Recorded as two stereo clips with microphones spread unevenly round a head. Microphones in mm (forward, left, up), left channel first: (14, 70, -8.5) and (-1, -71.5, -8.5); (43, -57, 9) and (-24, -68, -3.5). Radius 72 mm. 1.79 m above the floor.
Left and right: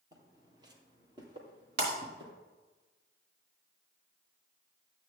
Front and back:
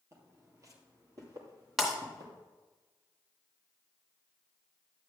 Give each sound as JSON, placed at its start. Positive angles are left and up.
{"t": 0.1, "sound": "footsteps", "azimuth_deg": -145, "distance_m": 2.0}
{"t": 1.8, "sound": "breaking glass", "azimuth_deg": -80, "distance_m": 3.0}